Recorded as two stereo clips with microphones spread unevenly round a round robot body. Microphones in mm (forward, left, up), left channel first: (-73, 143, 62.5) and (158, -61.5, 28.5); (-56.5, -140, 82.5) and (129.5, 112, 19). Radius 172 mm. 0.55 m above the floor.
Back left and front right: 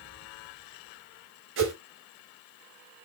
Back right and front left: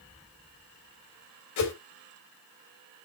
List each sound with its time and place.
1.6 s a whoosh: 90° right, 4 m